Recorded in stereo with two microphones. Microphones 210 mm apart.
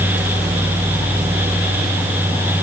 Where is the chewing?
No chewing in this recording.